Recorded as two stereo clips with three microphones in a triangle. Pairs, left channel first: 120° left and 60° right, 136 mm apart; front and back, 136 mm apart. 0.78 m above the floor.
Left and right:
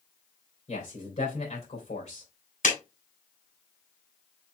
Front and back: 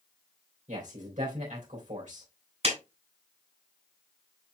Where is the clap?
140° left, 4 m.